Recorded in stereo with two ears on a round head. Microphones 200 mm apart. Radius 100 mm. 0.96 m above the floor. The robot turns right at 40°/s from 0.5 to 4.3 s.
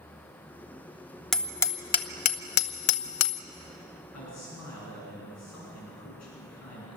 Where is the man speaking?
80° left, 9 m; by 7.0 s 85° left, 9 m.